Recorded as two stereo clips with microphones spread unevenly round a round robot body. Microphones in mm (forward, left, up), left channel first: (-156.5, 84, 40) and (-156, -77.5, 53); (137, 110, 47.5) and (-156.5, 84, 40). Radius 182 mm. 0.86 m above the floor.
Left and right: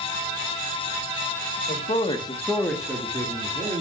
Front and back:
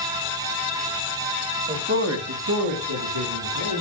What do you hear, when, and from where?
1.7 s a man speaking: 125° left, 1.5 m; by 3.8 s 150° right, 2.5 m